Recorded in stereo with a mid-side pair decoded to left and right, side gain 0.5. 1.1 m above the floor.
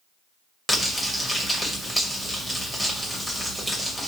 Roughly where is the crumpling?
Ahead.